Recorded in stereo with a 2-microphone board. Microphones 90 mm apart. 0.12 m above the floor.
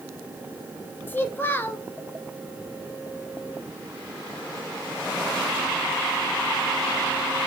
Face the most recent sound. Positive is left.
turn(degrees=25)  # may be behind; listen again after turning